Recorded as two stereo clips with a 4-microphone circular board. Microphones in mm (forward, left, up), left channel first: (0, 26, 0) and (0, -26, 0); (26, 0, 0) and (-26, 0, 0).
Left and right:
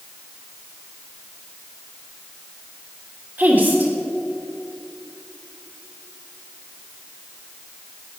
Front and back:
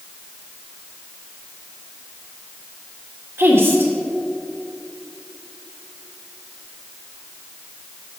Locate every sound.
3.4 s a woman speaking: 140° right, 1.6 m